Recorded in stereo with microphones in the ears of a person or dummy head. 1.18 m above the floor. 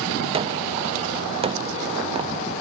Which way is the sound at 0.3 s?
25° right (ahead or behind).